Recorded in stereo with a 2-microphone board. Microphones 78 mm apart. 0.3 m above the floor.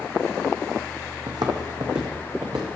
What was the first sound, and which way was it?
Footsteps, 70° right (ahead or behind).